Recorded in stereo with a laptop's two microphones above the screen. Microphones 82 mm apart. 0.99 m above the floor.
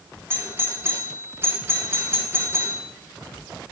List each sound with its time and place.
0.3 s a doorbell: 25° right (ahead or behind), 1.5 m